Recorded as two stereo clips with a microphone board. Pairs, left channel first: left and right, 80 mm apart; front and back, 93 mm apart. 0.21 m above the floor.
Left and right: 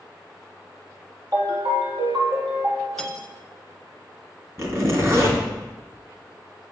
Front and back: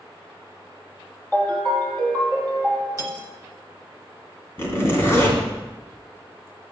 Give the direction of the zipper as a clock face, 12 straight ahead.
2 o'clock.